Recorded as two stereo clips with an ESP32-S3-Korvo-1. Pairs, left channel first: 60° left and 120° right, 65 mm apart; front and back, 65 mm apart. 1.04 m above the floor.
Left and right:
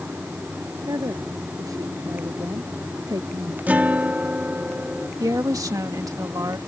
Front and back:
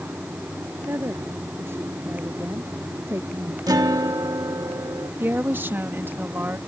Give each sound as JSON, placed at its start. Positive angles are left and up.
{"t": 0.9, "sound": "a woman speaking", "azimuth_deg": -135}
{"t": 3.7, "sound": "a guitar", "azimuth_deg": 175}
{"t": 5.2, "sound": "a woman speaking", "azimuth_deg": -130}